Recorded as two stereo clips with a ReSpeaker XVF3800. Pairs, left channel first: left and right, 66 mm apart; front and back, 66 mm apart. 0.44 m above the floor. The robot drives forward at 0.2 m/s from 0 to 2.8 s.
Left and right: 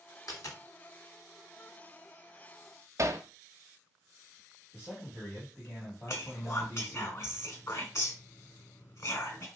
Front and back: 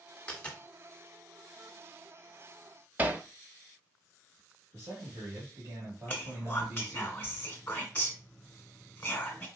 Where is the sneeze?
I don't hear a sneeze.